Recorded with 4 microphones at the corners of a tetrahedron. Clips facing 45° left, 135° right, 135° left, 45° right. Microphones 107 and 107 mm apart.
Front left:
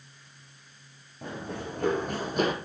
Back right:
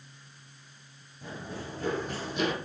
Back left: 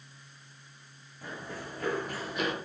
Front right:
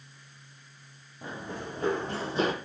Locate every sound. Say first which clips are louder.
1.2 s running footsteps: front left 4 dB, front right 3 dB; 25° left, 4 m; by 2.5 s 5° left, 2 m